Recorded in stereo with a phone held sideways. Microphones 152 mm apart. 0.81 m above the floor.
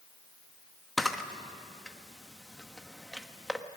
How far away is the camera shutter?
About 1.1 m.